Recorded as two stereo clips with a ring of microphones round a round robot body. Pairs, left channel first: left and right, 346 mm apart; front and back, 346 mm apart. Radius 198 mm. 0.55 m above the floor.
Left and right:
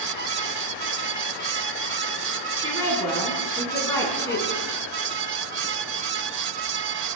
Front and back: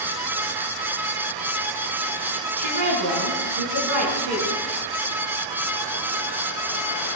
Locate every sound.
2.6 s a woman speaking: 170° left, 7 m